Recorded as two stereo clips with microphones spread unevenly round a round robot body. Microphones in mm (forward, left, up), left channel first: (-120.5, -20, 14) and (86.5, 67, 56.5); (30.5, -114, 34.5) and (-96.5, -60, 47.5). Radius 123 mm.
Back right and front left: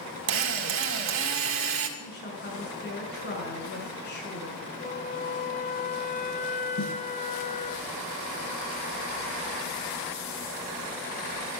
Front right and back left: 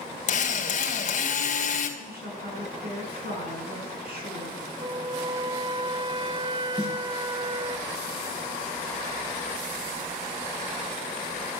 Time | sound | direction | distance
0.3 | a drill | 10° right | 2.5 m
2.0 | a woman speaking | 160° left | 7 m
4.8 | a flute | 155° right | 1.0 m
6.8 | a snare drum | 120° right | 3.5 m